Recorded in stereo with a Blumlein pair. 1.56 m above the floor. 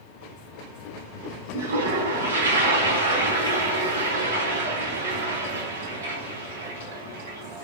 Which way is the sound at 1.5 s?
65° right.